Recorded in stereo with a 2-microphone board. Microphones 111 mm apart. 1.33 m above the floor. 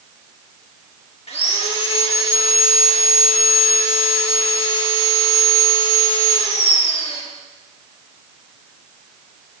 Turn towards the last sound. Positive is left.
turn(degrees=75)  # may be behind; listen again after turning